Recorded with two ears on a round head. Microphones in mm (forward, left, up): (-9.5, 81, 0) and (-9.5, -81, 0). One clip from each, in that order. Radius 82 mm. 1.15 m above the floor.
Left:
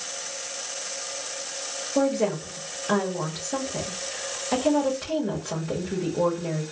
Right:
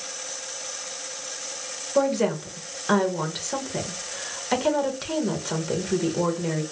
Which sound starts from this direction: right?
A woman speaking, at 1.9 s.